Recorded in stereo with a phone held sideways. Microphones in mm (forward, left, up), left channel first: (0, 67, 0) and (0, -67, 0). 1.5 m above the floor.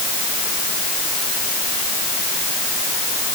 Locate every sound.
Only background noise.